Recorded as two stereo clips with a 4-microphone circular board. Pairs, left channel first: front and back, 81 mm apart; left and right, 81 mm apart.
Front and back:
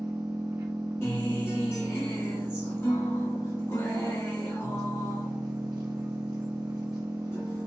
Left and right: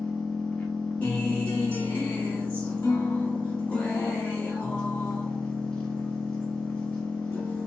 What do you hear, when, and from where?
0.0 s an engine running: 165° left, 0.8 m
1.0 s a guitar: 40° left, 1.5 m